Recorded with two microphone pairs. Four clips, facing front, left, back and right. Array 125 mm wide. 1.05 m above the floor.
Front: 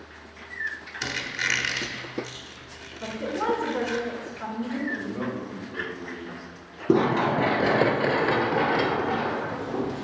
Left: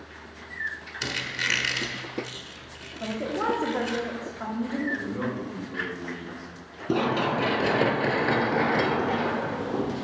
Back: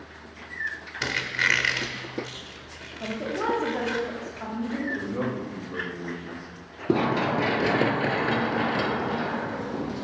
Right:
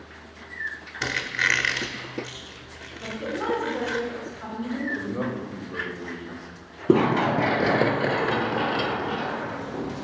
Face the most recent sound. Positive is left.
turn(degrees=85)